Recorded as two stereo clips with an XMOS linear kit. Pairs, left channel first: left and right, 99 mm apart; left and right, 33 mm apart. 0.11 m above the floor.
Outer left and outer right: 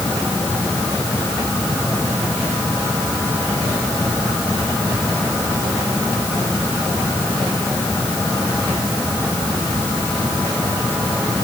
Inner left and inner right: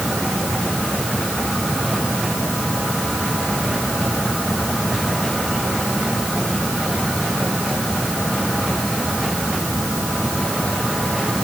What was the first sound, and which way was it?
Only background noise.